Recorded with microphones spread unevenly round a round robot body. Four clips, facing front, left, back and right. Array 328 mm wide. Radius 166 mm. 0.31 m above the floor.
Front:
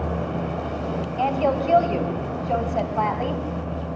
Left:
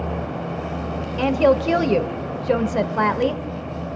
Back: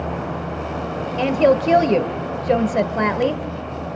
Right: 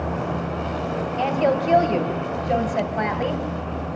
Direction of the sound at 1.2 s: 130° left.